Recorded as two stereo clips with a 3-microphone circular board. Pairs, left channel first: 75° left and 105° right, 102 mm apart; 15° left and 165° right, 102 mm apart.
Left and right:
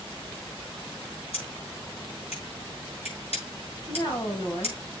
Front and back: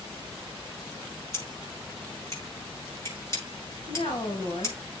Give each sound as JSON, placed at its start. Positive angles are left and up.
{"t": 1.3, "sound": "scissors", "azimuth_deg": 75, "distance_m": 7.5}
{"t": 3.9, "sound": "a woman speaking", "azimuth_deg": 35, "distance_m": 3.5}